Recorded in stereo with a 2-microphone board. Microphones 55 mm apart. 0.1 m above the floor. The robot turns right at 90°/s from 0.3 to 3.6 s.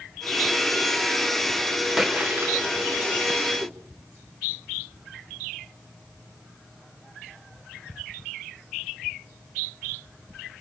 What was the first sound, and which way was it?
A splash, straight behind.